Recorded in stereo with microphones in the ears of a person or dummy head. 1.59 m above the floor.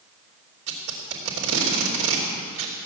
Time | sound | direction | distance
0.7 | tape being pulled | 75° right (ahead or behind) | 3 m